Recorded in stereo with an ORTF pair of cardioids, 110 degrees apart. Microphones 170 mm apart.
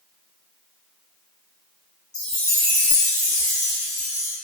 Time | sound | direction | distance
2.1 | a chime | 40° left | 2.0 m